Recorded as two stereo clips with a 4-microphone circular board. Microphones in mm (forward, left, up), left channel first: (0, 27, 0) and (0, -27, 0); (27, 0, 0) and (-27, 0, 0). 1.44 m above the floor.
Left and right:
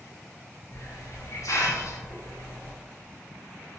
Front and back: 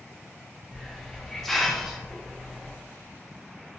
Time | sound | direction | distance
0.7 | a hiss | 85° left | 0.7 m